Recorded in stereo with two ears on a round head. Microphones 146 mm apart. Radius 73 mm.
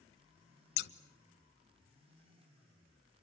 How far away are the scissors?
About 1.0 m.